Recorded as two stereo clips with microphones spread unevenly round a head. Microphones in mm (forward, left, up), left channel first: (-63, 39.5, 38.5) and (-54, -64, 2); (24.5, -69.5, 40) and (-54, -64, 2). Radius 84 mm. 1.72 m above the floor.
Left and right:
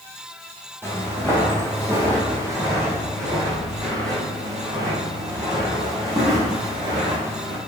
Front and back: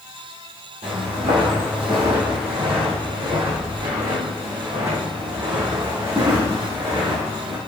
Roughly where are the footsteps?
Behind.